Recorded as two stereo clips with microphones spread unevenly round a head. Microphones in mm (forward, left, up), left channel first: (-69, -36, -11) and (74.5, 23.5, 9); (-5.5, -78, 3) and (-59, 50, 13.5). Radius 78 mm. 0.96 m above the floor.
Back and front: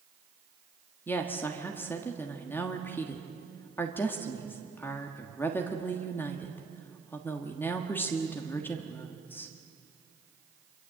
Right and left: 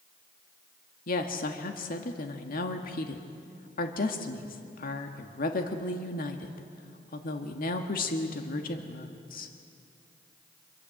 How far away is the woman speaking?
About 1.5 m.